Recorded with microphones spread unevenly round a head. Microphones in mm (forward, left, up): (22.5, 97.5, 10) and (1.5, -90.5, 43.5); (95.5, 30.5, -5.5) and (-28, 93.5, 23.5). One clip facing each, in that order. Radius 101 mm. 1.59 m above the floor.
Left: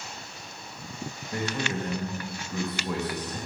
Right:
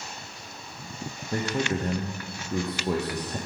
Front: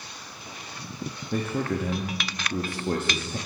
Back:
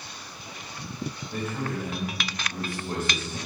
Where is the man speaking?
35° right, 0.8 m.